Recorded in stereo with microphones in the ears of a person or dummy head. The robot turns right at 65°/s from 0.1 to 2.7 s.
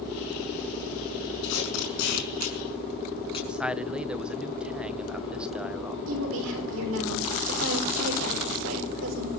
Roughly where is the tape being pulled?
Left.